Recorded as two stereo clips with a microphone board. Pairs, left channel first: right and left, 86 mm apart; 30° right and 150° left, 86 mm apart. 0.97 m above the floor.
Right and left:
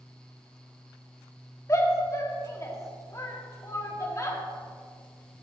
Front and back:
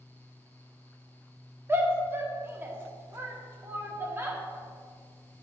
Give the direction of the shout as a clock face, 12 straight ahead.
5 o'clock.